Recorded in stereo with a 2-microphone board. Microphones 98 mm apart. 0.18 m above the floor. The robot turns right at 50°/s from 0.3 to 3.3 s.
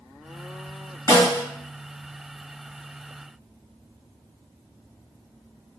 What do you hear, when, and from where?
1.1 s a snare drum: 40° left (ahead or behind), 1.7 m; by 1.4 s 45° left (ahead or behind), 1.7 m